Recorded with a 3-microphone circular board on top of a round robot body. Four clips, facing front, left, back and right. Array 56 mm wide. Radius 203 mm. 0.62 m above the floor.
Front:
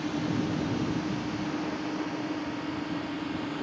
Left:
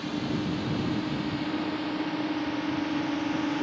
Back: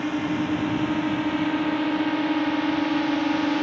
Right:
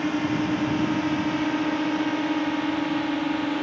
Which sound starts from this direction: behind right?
A drone, at 0.0 s.